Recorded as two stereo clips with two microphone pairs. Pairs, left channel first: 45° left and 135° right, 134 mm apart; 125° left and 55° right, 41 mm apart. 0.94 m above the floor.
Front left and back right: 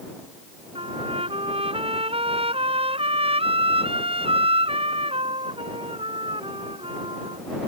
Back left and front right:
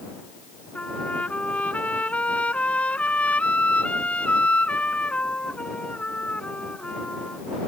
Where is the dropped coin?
I don't hear a dropped coin.